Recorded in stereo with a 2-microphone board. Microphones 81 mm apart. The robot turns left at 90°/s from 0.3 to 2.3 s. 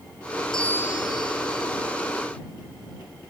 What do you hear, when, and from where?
0.5 s a bell: 175° left; by 1.7 s 70° left